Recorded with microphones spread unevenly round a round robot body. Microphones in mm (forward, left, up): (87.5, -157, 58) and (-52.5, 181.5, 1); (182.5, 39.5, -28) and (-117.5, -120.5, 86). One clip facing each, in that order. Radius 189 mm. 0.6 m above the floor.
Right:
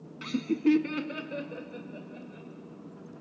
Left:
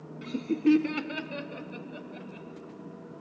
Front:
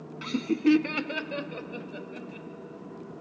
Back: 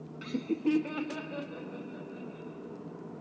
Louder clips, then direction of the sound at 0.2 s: Even, front 6 dB; 15° right.